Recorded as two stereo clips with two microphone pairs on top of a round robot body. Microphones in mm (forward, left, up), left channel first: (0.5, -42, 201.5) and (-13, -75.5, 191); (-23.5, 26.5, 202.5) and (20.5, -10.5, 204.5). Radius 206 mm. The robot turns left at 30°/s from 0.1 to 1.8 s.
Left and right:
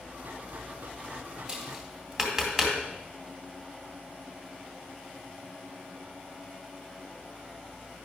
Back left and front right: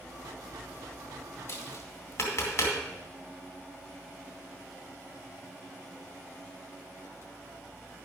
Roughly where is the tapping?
Behind.